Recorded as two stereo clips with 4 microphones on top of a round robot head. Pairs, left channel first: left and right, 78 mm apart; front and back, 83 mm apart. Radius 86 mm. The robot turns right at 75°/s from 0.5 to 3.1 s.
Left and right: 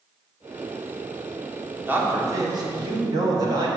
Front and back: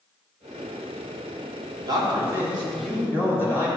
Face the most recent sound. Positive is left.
turn(degrees=-65)